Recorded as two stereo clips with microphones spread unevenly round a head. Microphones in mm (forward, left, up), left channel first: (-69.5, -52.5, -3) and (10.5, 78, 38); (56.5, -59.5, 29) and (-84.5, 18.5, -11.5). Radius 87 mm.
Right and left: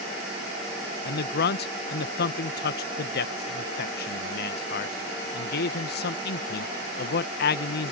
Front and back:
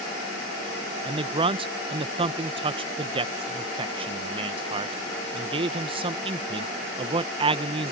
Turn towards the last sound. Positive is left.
turn(degrees=-145)